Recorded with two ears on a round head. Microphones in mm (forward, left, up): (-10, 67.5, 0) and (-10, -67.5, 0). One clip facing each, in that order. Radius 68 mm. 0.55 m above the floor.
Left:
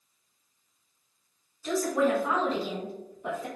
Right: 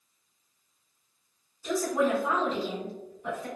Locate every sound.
1.6 s a woman speaking: 15° right (ahead or behind), 1.3 m; by 3.5 s 20° left (ahead or behind), 1.0 m